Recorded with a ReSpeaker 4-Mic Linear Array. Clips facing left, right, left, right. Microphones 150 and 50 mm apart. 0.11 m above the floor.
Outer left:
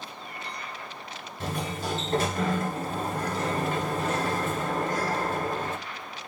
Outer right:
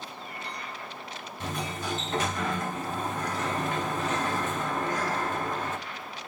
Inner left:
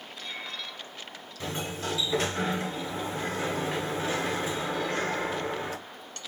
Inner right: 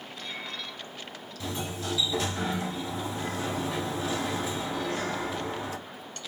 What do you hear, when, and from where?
1.4 s a sliding door: 40° left (ahead or behind), 0.8 m